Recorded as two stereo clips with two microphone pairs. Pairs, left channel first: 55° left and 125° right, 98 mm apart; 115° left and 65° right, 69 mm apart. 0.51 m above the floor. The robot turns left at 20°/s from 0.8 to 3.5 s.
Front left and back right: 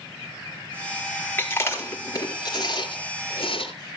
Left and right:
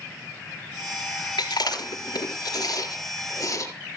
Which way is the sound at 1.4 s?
120° left.